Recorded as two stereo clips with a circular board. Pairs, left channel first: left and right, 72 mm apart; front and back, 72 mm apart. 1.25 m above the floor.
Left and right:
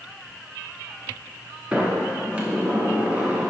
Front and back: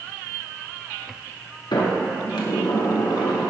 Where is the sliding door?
20° right, 0.9 m.